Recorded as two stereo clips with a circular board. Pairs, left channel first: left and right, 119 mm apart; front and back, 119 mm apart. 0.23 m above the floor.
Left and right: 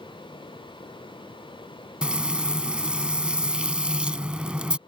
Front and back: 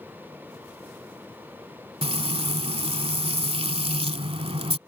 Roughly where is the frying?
Behind.